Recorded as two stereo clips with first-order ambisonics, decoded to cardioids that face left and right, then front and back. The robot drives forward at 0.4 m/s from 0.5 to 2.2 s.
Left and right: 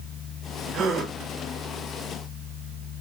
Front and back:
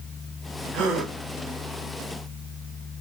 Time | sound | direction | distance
0.7 | a gasp | 145° right | 1.4 m